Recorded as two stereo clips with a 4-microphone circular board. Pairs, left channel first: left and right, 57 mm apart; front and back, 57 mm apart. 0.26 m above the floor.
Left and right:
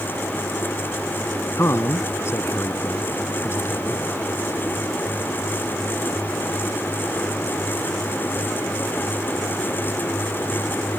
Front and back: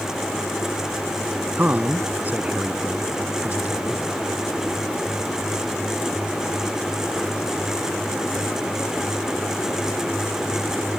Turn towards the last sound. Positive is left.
turn(degrees=125)